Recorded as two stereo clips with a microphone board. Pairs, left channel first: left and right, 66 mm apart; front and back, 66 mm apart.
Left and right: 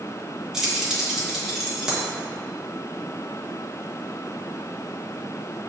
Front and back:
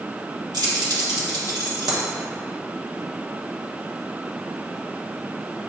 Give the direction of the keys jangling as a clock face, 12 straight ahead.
6 o'clock.